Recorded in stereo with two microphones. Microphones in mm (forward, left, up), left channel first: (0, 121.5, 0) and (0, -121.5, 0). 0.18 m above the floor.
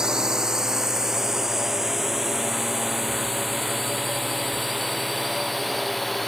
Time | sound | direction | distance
0.0 | a drone | 5° right (ahead or behind) | ?